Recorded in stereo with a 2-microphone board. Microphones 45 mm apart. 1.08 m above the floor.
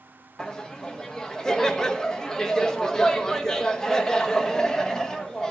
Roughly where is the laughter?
Centre.